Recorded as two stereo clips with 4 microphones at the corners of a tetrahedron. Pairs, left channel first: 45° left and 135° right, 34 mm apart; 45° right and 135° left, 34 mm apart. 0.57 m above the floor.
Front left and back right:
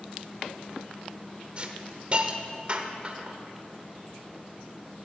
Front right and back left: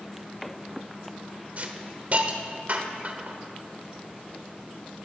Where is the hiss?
175° left, 1.2 m.